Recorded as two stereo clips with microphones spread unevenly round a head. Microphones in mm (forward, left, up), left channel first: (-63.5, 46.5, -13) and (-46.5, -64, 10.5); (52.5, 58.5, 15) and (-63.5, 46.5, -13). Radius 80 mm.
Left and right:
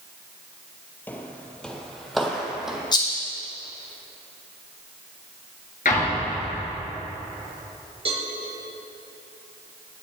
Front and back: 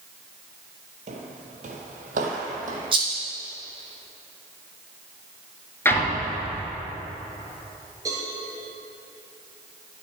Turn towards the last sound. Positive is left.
turn(degrees=-100)